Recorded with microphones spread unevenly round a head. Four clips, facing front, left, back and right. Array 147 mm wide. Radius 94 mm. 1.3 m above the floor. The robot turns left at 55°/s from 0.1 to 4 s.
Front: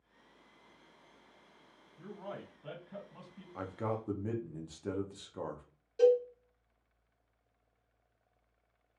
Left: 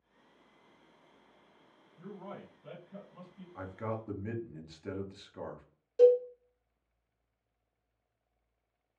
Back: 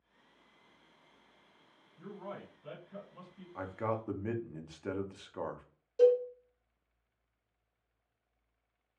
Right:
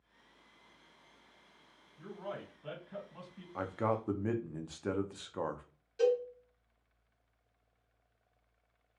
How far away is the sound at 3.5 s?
About 0.6 m.